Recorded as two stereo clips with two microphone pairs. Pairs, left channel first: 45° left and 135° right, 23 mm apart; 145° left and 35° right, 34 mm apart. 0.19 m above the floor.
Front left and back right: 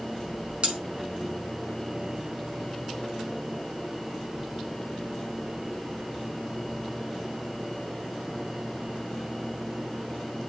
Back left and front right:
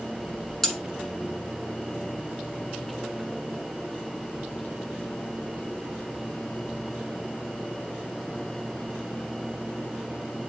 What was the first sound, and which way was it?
Cutlery clinking, 130° right.